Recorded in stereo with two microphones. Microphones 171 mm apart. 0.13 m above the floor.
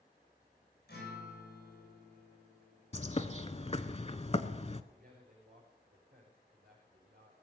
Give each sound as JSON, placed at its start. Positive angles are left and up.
{"t": 0.9, "sound": "a guitar", "side_deg": 65, "distance_m": 8.0}
{"t": 2.9, "sound": "a bird", "side_deg": 40, "distance_m": 0.5}
{"t": 4.9, "sound": "a man speaking", "side_deg": -65, "distance_m": 5.5}